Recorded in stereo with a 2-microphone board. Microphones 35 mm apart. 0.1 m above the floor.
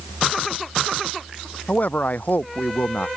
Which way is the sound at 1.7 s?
55° left (ahead or behind).